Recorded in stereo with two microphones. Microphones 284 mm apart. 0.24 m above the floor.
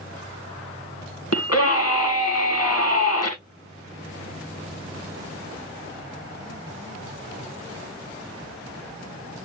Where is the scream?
60° left (ahead or behind), 1.9 m.